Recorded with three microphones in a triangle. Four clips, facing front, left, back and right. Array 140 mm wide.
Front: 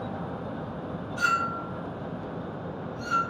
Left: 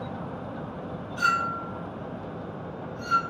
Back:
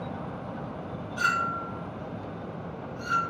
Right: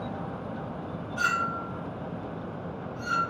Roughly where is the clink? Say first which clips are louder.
Left 2 dB, even; behind.